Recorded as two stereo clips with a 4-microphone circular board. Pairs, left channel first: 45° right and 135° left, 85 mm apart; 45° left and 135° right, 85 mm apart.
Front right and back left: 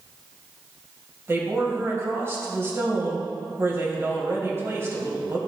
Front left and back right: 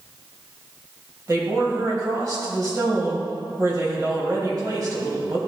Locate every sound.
1.3 s a woman speaking: 175° right, 2.5 m